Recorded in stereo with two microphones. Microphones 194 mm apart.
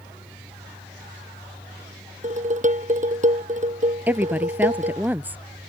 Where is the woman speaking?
10° right (ahead or behind).